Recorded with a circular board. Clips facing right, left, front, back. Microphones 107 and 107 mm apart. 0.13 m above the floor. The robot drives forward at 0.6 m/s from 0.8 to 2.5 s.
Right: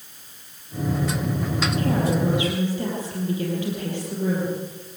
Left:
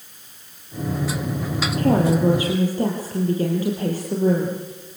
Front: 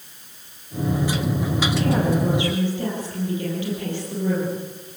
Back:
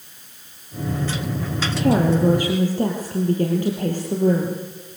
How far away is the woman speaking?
About 4 m.